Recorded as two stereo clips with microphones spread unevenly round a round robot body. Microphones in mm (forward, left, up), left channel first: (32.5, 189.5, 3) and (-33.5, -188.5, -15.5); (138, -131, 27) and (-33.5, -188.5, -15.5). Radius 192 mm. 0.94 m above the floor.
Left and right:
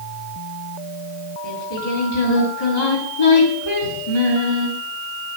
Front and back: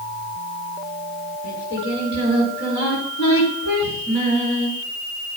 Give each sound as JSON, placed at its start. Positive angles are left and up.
{"t": 1.4, "sound": "singing", "azimuth_deg": 55, "distance_m": 5.0}